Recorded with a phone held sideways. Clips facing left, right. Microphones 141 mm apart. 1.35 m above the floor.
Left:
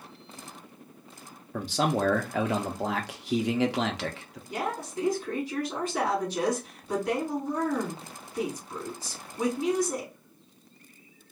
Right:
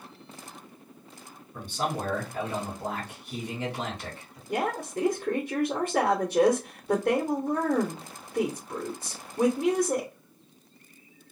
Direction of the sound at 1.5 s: 75° left (ahead or behind).